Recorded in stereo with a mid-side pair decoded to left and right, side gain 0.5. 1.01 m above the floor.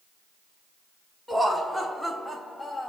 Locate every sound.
1.3 s laughter: straight ahead, 3 m; by 2.9 s 20° left, 2 m